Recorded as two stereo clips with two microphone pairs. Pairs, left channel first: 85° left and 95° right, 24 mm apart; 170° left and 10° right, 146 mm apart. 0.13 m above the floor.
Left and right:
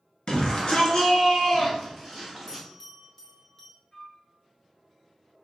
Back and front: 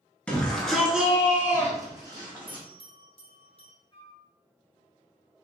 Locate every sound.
0.3 s a shout: 95° left, 1.5 m; by 2.6 s straight ahead, 1.5 m
2.5 s a bell: 150° left, 1.3 m
3.9 s a flute: 130° left, 1.0 m